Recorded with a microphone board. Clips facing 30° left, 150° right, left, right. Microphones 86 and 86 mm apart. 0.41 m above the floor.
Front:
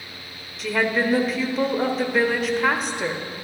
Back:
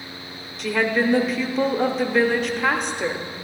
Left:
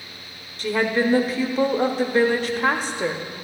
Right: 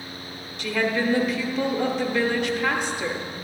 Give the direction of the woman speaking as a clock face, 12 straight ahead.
8 o'clock.